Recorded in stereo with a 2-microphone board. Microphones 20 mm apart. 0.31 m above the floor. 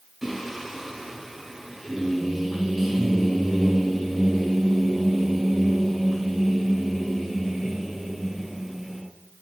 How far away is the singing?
About 2 m.